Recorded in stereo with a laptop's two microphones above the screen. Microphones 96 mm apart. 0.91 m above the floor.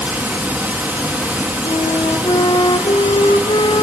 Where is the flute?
65° left (ahead or behind), 0.8 m.